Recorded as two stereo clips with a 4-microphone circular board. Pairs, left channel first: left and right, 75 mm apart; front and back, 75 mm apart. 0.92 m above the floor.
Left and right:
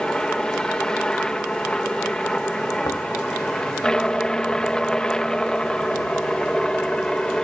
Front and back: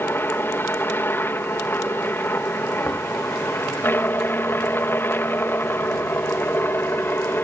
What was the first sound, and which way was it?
A helicopter, 20° left.